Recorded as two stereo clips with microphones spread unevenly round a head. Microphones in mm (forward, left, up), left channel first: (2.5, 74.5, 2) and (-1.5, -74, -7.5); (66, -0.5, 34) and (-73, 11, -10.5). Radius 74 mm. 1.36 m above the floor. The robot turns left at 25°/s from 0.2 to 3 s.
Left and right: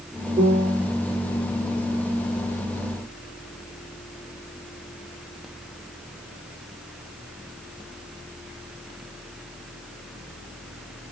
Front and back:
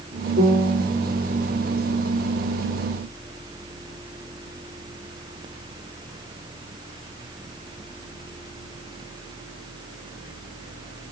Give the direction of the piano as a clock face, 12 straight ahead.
5 o'clock.